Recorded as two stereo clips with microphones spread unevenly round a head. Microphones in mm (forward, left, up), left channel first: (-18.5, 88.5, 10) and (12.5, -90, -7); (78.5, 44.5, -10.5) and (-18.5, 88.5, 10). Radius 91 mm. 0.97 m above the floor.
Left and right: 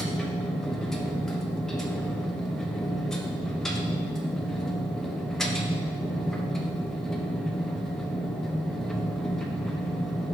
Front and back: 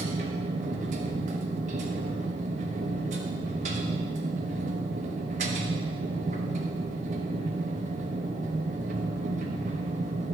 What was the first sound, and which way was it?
A machine running, 170° right.